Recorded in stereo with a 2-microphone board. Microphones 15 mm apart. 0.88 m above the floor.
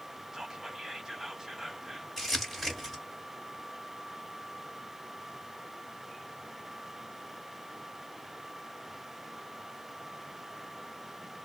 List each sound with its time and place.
0.3 s whispering: 30° right (ahead or behind), 1.4 m
2.2 s crumpling: 10° left (ahead or behind), 1.5 m